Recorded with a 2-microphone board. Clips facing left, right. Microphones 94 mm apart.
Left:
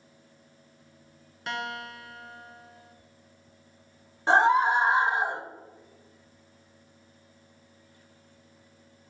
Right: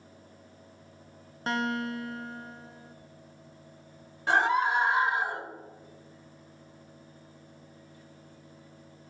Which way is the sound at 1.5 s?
35° right (ahead or behind).